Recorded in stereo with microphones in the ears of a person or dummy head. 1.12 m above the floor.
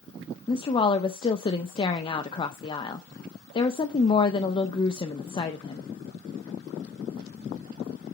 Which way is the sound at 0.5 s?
30° left (ahead or behind).